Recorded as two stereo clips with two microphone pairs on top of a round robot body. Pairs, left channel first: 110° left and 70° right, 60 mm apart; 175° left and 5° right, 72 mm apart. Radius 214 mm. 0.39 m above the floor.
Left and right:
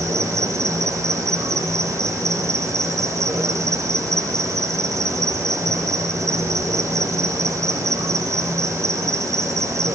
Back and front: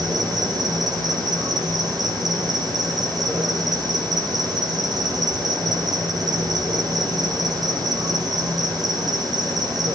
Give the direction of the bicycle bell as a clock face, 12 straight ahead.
I don't hear a bicycle bell.